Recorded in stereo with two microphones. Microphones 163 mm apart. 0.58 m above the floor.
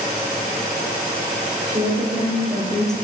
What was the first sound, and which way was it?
A woman speaking, 45° right (ahead or behind).